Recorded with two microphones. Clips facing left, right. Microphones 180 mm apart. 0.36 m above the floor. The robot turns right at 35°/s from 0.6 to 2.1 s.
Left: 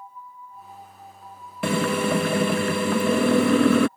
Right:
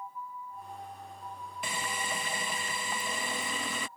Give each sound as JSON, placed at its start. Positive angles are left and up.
{"t": 1.6, "sound": "a drill", "side_deg": 80}